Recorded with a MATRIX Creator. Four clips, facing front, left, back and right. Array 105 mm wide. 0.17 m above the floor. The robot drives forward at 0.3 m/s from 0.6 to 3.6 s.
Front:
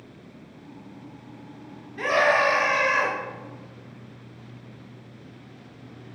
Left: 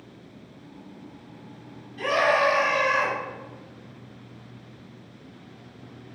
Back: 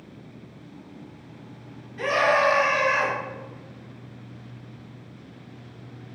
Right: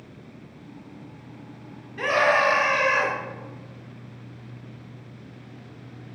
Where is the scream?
80° right, 2.5 m; by 3.1 s 90° right, 2.5 m.